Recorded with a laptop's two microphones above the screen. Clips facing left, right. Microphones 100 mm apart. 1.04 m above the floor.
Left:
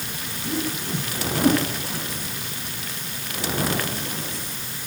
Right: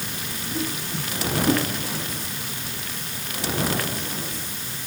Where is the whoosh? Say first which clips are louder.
Left 3 dB; 75° left (ahead or behind), 3.5 m.